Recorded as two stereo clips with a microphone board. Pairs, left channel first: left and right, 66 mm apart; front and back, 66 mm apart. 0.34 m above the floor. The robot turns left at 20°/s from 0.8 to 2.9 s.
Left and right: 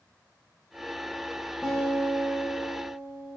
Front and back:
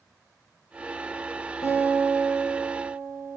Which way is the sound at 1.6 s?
10° right.